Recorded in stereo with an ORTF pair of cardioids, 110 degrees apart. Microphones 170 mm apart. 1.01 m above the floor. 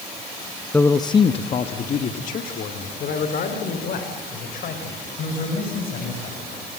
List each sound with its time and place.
0.7 s a man speaking: 10° left, 0.7 m; by 6.4 s 60° left, 5 m